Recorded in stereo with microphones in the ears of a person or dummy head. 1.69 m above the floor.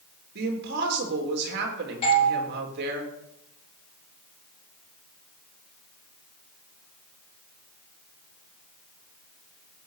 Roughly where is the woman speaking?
Right.